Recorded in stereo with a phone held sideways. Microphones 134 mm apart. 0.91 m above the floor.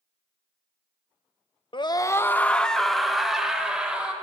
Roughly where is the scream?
Left.